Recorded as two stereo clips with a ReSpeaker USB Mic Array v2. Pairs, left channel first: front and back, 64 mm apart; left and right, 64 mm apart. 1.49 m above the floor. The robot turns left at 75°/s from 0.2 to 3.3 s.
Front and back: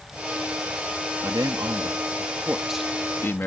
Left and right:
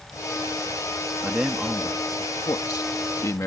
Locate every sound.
1.2 s a man speaking: 150° right; by 3.5 s 55° left